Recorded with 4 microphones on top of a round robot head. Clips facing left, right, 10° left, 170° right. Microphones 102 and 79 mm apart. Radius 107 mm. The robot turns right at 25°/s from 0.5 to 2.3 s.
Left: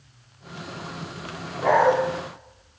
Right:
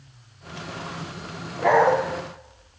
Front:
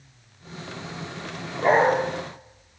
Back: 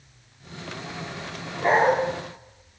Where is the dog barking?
95° right, 5 m; by 1.9 s 85° right, 5 m.